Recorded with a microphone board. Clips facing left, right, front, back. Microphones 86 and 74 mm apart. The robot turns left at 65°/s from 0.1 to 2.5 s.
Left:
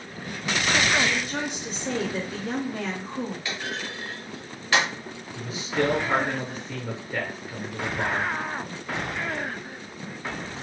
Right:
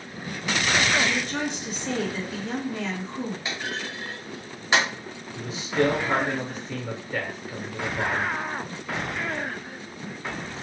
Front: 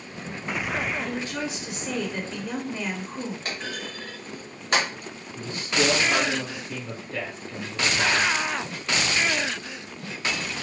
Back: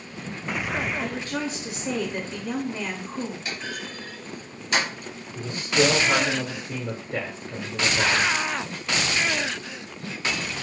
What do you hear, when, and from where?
1.0 s a woman speaking: 175° right, 1.1 m; by 3.4 s 90° left, 1.1 m
3.5 s a clunk: 25° right, 1.3 m
5.3 s a man speaking: 175° left, 0.8 m